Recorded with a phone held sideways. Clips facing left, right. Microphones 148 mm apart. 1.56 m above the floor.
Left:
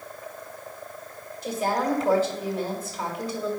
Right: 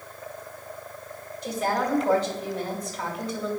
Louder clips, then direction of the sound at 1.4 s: Left 1 dB; 5° left (ahead or behind).